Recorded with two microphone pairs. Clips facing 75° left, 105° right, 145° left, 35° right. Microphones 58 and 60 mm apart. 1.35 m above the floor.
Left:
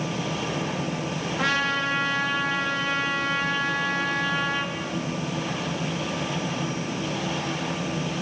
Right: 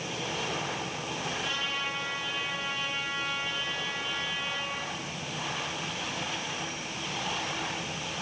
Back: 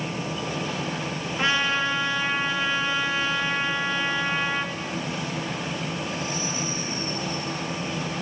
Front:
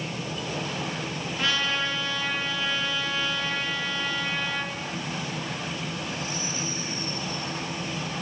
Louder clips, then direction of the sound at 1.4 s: Left 13 dB, back 4 dB; 80° left.